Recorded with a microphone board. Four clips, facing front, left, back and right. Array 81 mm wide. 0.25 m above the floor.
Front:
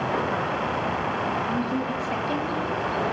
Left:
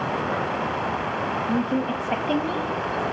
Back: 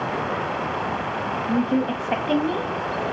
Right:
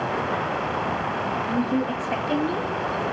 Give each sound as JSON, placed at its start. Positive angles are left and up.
{"t": 1.5, "sound": "a woman speaking", "azimuth_deg": 165, "distance_m": 1.5}